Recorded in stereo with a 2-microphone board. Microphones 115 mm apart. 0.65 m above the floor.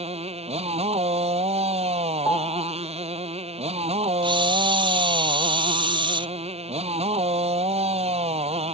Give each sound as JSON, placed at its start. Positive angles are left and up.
{"t": 0.0, "sound": "a motorcycle", "side_deg": -60}
{"t": 2.2, "sound": "a piano", "side_deg": 25}
{"t": 4.2, "sound": "a camera shutter", "side_deg": -45}